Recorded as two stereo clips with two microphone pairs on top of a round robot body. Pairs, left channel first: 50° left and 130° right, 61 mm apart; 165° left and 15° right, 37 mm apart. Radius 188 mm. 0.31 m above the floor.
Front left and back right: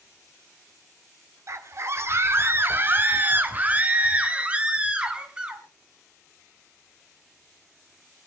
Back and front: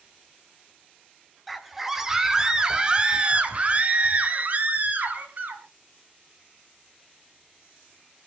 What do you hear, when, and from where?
1.5 s a scream: 100° right, 2.5 m; by 5.6 s 55° right, 4.5 m